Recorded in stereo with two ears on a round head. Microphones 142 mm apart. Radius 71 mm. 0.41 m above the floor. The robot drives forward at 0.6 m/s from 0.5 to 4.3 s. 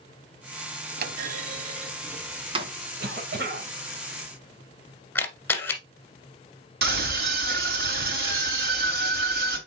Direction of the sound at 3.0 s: 60° right (ahead or behind).